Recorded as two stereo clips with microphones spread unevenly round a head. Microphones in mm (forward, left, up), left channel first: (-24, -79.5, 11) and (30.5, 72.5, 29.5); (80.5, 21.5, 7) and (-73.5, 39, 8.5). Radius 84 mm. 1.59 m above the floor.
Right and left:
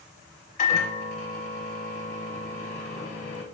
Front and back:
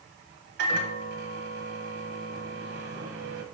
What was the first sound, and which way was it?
A microwave, 160° right.